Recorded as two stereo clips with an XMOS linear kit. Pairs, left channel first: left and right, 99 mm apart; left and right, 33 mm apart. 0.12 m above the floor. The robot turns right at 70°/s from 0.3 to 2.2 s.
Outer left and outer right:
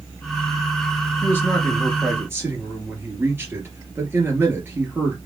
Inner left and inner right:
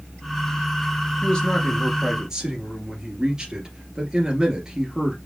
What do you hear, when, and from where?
1.2 s a man speaking: 140° left, 2.5 m; by 5.2 s 150° right, 2.5 m